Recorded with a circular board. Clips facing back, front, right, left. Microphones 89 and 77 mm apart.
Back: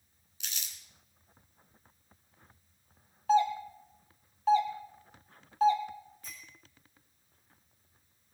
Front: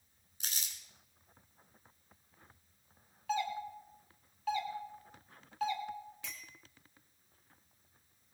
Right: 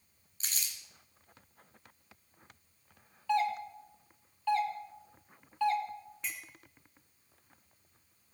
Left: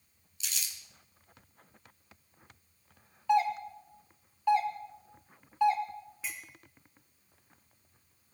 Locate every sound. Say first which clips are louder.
0.4 s crumpling: even, even; 45° right, 3 m
3.3 s a doorbell: back 10 dB, left 3 dB; 150° left, 2 m
6.2 s a clink: front 1 dB, even; 5° left, 2.5 m